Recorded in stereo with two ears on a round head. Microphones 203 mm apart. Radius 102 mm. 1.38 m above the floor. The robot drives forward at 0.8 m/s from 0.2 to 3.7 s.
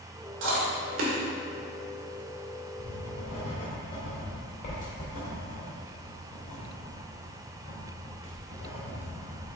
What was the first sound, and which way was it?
Chewing, 55° right (ahead or behind).